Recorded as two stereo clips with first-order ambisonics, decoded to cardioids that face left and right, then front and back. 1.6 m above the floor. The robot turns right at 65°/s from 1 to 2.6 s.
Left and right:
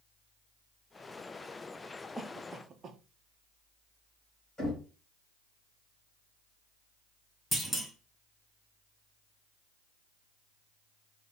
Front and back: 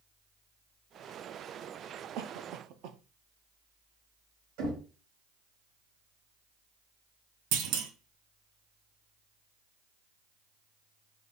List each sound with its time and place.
2.2 s a cough: straight behind, 0.5 m; by 3.0 s 150° right, 0.5 m
4.6 s knocking: 170° left, 1.9 m
7.5 s a clunk: 175° left, 0.7 m